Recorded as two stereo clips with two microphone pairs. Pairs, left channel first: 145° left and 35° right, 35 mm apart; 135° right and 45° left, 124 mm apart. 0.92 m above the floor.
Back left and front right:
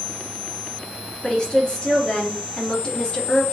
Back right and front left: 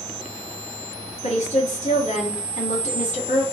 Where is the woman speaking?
155° right, 1.8 m.